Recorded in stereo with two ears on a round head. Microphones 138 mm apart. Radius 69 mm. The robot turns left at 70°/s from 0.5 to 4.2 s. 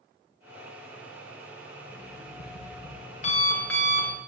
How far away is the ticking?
I don't hear ticking.